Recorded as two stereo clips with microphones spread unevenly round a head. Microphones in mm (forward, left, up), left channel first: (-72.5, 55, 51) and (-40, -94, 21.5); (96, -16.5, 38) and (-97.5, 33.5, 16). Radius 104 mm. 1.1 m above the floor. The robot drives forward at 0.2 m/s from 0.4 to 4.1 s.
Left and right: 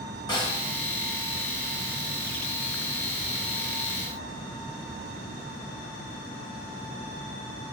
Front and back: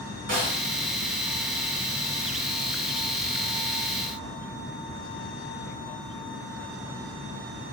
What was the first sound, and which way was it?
A snare drum, 145° left.